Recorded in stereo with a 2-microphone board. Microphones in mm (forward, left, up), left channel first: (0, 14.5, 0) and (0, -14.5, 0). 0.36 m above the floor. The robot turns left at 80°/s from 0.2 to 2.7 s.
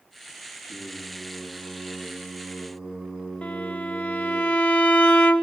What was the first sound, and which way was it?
Singing, 155° left.